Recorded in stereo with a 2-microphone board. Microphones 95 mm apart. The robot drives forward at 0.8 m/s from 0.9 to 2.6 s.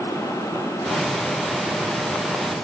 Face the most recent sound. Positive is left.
No sound to turn to.